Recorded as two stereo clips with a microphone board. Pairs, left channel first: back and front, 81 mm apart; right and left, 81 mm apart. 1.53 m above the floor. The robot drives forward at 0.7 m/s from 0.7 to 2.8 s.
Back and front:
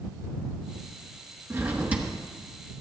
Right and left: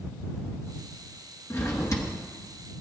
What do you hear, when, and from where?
1.5 s a drawer: 50° right, 1.1 m; by 2.1 s 80° right, 1.0 m